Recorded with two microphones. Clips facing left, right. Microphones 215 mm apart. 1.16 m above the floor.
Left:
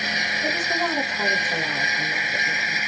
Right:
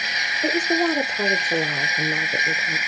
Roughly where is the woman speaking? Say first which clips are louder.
Right 7 dB; right.